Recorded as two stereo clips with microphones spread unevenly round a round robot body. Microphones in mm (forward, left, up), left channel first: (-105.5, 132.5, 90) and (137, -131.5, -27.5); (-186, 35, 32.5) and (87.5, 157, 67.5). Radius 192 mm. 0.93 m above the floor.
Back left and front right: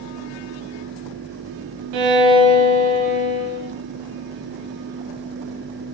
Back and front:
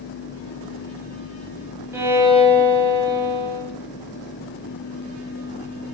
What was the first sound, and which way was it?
A violin, 60° right.